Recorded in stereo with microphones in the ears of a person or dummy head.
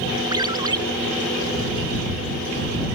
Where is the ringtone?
20° right (ahead or behind).